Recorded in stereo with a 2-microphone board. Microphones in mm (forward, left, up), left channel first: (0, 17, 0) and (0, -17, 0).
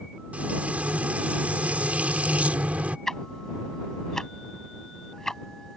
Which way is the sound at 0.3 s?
50° right (ahead or behind).